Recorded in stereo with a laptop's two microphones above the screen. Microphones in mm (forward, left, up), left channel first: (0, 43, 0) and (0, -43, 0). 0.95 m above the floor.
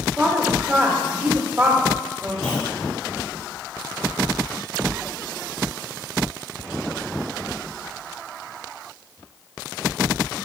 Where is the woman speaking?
20° right (ahead or behind), 1.0 m.